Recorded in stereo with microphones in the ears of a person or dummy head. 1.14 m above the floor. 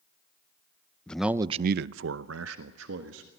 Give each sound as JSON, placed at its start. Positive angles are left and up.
{"t": 1.1, "sound": "a man speaking", "side_deg": 5, "distance_m": 0.6}